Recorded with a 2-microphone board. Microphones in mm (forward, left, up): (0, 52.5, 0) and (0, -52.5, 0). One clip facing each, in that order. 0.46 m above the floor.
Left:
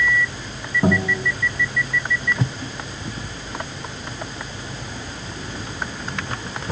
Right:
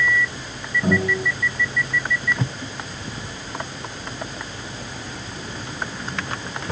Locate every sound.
0.8 s a guitar: 45° left (ahead or behind), 3.5 m